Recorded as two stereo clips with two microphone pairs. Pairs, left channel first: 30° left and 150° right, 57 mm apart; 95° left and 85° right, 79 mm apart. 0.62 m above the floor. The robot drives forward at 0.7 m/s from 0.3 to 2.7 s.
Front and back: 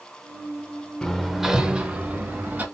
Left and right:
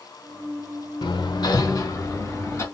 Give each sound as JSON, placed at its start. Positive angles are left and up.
{"t": 1.0, "sound": "hammering", "azimuth_deg": 110, "distance_m": 0.7}